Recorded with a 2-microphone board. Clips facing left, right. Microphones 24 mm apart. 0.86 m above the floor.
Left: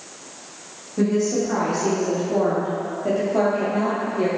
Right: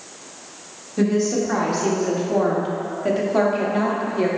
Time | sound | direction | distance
1.0 | a woman speaking | 50° right (ahead or behind) | 2 m